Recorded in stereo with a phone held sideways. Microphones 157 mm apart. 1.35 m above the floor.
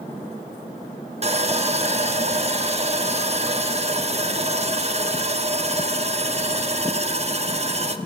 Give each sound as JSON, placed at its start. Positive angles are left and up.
{"t": 1.2, "sound": "sawing", "side_deg": -40, "distance_m": 0.9}